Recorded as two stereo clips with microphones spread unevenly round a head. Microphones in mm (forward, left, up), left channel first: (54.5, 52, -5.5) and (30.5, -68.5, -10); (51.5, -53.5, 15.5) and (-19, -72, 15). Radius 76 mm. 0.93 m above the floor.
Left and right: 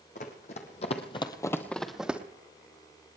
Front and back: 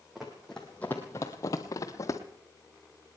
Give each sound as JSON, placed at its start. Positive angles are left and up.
{"t": 0.1, "sound": "running footsteps", "azimuth_deg": 105, "distance_m": 2.0}